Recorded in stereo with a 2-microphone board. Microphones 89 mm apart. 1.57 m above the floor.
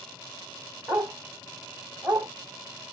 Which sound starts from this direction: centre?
A dog barking, at 0.9 s.